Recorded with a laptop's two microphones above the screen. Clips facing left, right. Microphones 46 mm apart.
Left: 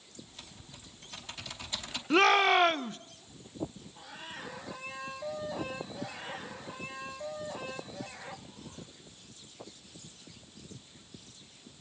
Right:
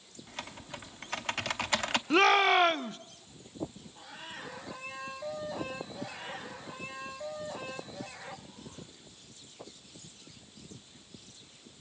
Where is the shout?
Centre (ahead or behind), 0.6 m.